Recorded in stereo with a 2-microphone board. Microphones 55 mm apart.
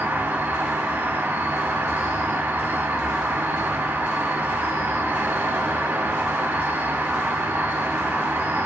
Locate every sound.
0.0 s an insect: 35° right (ahead or behind), 0.8 m